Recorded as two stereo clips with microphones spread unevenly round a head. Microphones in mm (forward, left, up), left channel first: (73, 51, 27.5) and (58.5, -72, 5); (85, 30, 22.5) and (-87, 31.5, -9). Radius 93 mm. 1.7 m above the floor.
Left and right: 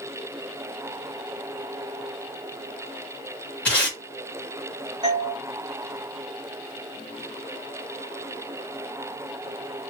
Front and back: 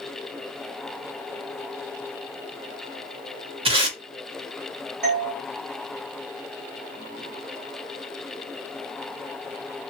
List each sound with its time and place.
3.6 s tape being pulled: 130° left, 1.1 m
5.0 s a doorbell: 145° right, 1.0 m